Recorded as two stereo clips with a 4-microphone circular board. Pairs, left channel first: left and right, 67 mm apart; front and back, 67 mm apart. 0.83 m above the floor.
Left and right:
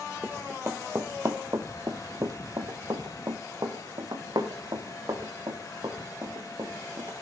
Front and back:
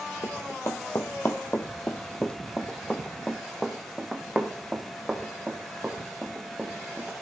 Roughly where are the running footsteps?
Ahead right.